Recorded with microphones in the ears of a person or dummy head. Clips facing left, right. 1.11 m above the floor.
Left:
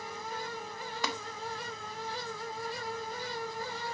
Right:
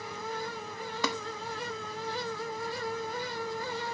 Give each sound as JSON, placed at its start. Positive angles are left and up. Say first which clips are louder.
{"t": 1.0, "sound": "tapping", "louder": "right 4 dB", "side_deg": -75, "distance_m": 1.0}